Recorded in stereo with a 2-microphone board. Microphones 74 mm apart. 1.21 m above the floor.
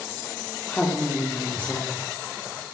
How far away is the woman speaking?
About 2.5 m.